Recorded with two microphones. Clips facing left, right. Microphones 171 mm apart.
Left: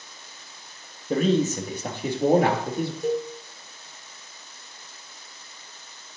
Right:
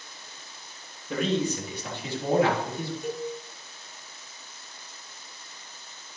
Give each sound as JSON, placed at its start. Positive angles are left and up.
{"t": 1.1, "sound": "a man speaking", "side_deg": 40, "distance_m": 3.0}
{"t": 3.0, "sound": "a cowbell", "side_deg": 35, "distance_m": 4.0}